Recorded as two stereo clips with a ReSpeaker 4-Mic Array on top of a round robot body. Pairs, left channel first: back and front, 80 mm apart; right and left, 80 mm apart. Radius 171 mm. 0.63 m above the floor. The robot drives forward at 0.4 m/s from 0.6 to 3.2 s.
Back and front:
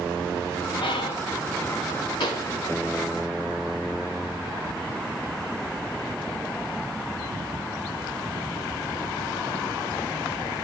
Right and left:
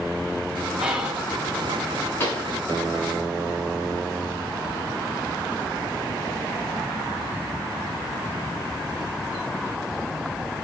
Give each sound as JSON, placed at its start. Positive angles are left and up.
{"t": 0.8, "sound": "whispering", "azimuth_deg": 170, "distance_m": 1.9}
{"t": 2.2, "sound": "a pop", "azimuth_deg": -155, "distance_m": 3.0}